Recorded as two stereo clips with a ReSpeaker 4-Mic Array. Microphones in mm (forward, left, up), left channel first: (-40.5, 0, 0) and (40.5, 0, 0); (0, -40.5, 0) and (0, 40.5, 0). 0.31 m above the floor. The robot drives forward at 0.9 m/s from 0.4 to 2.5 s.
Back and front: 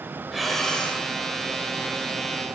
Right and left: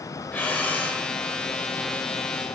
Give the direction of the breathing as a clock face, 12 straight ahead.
3 o'clock.